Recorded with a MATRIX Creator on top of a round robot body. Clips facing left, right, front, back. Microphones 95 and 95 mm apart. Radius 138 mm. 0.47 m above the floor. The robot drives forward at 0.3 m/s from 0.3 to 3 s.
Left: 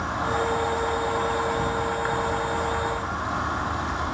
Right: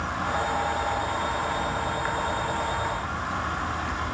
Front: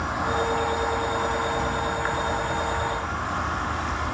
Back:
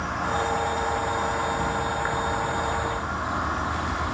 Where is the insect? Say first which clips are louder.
Left 2 dB, front 1 dB; 70° left, 2 m; by 4.1 s 125° left, 2 m.